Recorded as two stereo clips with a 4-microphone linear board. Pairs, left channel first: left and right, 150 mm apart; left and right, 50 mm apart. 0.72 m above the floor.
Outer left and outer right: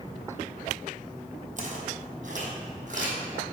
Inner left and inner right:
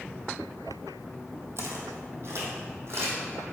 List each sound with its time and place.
1.6 s footsteps: 55° right (ahead or behind), 1.6 m